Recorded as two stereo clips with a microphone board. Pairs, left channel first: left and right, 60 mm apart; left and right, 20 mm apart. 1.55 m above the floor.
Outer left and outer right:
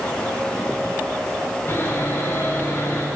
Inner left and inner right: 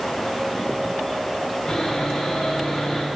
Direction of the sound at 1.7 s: 40° left (ahead or behind).